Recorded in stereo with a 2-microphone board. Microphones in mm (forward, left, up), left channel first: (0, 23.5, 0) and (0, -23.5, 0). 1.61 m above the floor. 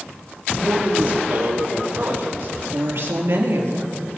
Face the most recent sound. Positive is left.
turn(degrees=-65)  # may be behind; listen again after turning